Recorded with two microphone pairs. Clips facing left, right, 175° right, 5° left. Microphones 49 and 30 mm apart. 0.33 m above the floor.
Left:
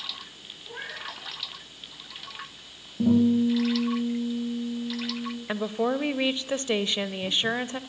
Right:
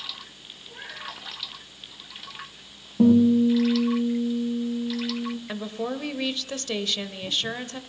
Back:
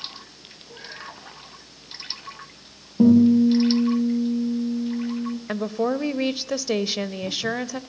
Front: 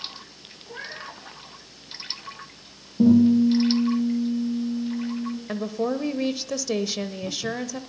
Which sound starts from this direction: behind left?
A woman speaking, at 5.5 s.